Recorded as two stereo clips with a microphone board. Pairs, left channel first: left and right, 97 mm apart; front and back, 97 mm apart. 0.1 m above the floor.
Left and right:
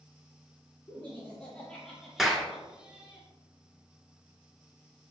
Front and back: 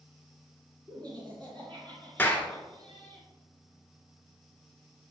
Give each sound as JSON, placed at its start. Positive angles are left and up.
{"t": 0.9, "sound": "laughter", "azimuth_deg": 150, "distance_m": 2.5}
{"t": 2.2, "sound": "a clap", "azimuth_deg": -10, "distance_m": 1.0}